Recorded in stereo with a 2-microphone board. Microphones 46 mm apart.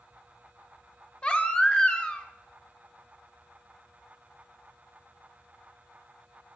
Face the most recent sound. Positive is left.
turn(degrees=25)  # may be behind; listen again after turning